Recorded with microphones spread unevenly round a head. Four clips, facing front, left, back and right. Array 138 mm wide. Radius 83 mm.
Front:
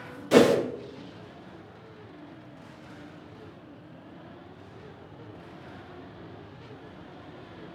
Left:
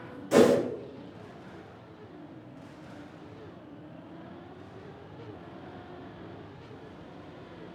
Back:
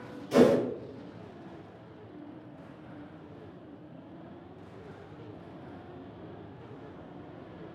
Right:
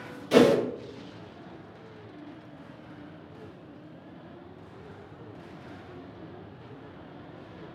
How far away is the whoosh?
About 0.8 m.